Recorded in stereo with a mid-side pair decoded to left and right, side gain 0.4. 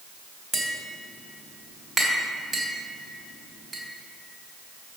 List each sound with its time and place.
0.5 s tapping: 50° right, 3 m